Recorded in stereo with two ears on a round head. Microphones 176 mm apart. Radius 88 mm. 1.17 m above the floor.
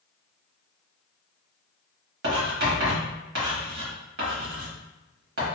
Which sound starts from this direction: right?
Writing, at 2.2 s.